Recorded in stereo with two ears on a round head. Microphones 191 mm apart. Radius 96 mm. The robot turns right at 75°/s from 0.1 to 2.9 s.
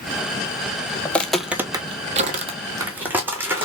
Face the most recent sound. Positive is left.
turn(degrees=-10)  # may be behind; listen again after turning